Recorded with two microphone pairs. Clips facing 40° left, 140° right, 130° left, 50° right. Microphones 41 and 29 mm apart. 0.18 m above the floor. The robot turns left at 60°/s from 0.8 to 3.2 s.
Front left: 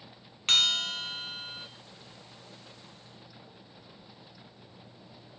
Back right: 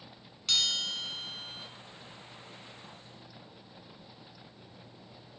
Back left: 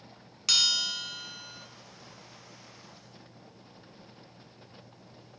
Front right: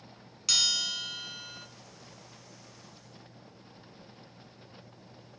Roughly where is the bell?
Ahead left.